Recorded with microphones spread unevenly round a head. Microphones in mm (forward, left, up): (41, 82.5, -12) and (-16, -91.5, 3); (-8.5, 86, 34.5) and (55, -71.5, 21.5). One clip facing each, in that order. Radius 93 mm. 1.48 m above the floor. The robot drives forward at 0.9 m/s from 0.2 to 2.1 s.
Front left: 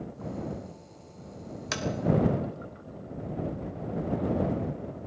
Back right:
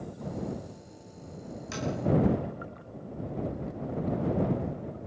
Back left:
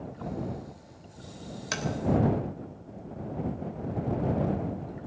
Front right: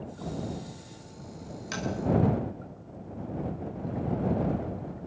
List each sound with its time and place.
1.7 s tapping: 85° left, 3.5 m; by 1.9 s 90° left, 3.5 m